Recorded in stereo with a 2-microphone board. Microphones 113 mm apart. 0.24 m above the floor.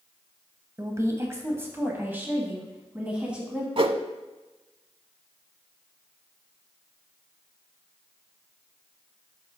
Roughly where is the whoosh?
Right.